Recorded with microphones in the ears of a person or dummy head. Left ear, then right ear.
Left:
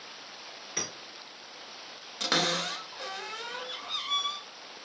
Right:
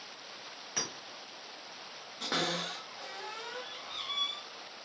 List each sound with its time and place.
0.8 s a clink: 45° right (ahead or behind), 2 m
2.2 s a cupboard door: 30° left (ahead or behind), 0.7 m